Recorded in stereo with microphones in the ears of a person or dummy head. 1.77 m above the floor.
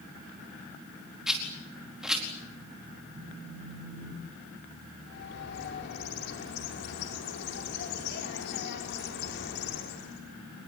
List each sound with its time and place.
1.3 s a rattle: 5° right (ahead or behind), 4.5 m
3.1 s a phone buzzing: 75° right (ahead or behind), 4.5 m
5.1 s a bird: 65° left (ahead or behind), 5 m